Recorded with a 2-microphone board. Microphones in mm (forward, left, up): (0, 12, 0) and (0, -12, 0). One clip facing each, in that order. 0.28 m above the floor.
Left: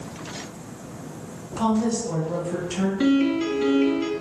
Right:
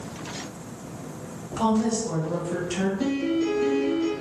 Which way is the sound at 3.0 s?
55° left (ahead or behind).